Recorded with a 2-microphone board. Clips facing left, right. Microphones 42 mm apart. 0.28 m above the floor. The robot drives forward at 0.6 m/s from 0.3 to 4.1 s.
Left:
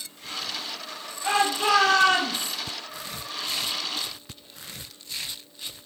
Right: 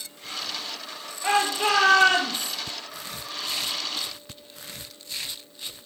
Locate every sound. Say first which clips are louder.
1.2 s a shout: even; 30° right (ahead or behind), 6.5 m